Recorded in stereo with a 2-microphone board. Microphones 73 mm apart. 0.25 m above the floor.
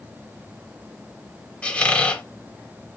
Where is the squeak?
20° left (ahead or behind), 0.8 m.